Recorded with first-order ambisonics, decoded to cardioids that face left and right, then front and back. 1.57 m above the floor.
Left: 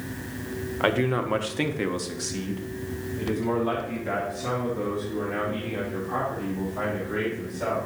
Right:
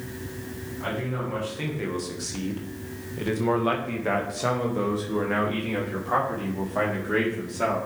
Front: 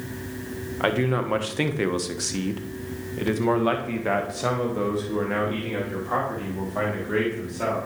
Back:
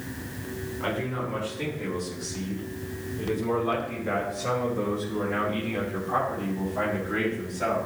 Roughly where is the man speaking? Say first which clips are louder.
Left 7 dB, front 7 dB; ahead left.